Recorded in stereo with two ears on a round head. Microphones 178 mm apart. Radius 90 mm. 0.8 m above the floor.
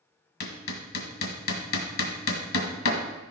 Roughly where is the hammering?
Left.